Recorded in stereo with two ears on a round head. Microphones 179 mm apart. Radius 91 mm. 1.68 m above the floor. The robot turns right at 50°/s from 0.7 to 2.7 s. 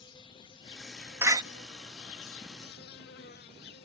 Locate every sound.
0.0 s an insect: 25° left; by 3.9 s 125° left
1.2 s a door slam: 15° right (ahead or behind); by 1.4 s 25° right (ahead or behind)